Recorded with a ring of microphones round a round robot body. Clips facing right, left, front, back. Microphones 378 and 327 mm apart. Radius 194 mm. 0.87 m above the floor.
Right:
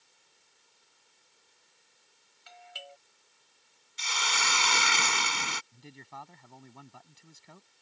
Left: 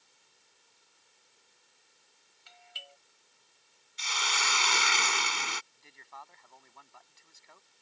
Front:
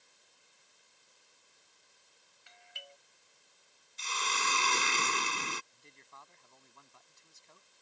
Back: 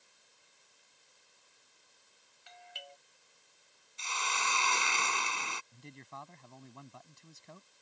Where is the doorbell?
125° right.